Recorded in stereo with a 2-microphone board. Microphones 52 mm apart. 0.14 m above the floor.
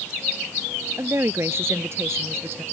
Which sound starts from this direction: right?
A woman speaking, at 1.0 s.